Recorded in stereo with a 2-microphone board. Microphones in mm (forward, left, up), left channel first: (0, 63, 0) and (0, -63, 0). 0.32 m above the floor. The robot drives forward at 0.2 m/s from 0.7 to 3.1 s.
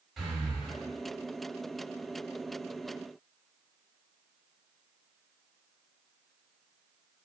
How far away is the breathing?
About 1.0 m.